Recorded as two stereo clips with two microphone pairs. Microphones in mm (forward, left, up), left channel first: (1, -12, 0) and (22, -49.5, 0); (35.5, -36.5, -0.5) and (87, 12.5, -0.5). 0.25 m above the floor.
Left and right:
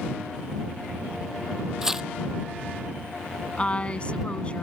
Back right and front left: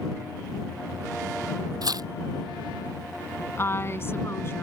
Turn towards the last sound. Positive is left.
turn(degrees=175)